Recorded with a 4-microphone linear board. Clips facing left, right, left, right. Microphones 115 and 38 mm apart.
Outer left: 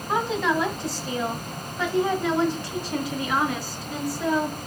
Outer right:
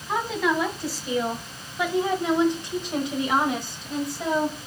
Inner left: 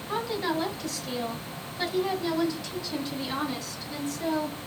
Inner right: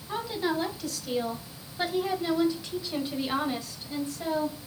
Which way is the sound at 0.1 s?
Centre (ahead or behind).